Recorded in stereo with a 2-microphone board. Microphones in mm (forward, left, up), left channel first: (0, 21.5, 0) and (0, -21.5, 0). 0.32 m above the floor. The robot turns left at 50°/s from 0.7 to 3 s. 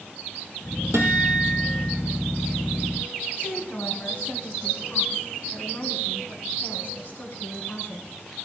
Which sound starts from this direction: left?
A woman speaking, at 3.4 s.